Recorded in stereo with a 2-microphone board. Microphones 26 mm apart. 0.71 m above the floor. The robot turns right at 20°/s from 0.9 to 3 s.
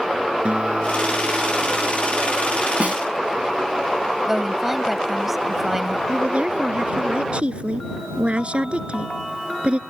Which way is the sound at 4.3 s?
10° right (ahead or behind).